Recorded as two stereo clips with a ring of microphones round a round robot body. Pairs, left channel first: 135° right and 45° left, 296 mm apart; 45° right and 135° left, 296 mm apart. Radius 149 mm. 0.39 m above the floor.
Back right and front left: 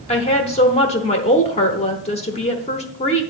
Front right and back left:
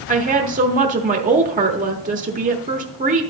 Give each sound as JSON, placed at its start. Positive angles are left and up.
{"t": 0.1, "sound": "a woman speaking", "azimuth_deg": 175, "distance_m": 1.0}